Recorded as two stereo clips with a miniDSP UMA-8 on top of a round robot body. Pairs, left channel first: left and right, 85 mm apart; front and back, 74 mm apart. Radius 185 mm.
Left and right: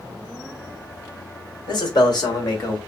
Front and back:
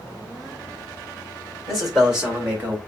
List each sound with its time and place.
1.7 s a man speaking: 90° left, 2.5 m; by 2.8 s 130° left, 1.9 m